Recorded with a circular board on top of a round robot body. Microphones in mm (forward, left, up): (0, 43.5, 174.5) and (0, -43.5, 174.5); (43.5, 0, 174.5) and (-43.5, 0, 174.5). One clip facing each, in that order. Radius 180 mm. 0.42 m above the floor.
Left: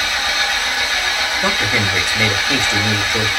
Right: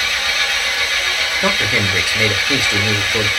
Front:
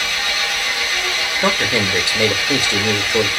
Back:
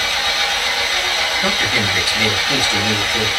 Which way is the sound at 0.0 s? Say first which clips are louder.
Left 1 dB, back 2 dB; 155° left.